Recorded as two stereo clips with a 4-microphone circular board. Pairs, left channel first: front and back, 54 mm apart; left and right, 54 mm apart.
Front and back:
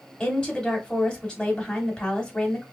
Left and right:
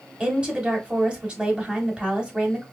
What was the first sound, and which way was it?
A woman speaking, 50° right.